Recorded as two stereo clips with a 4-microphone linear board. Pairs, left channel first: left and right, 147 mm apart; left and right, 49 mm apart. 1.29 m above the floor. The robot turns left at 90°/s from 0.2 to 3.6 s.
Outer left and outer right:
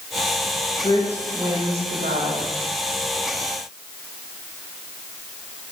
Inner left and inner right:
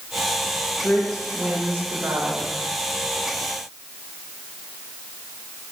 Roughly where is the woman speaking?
Ahead left.